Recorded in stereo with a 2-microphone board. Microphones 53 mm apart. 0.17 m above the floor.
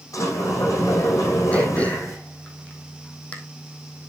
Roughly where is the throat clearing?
Left.